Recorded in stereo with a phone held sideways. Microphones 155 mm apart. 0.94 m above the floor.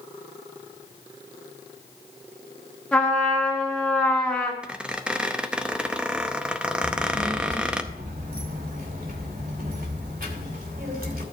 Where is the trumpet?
5° left (ahead or behind), 1.9 m.